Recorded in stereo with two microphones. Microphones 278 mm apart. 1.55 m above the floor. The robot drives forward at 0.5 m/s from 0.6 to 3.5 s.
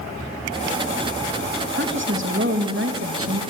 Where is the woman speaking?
45° right (ahead or behind), 3 m; by 3.4 s 60° right (ahead or behind), 2.5 m.